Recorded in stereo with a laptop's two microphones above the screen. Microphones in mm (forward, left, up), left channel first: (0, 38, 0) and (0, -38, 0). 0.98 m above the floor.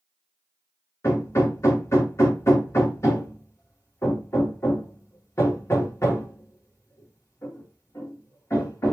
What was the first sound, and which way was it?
Hammering, 40° left (ahead or behind).